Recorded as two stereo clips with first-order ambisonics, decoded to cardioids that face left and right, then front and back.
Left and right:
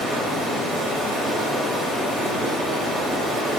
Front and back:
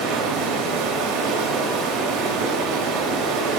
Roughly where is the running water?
Behind.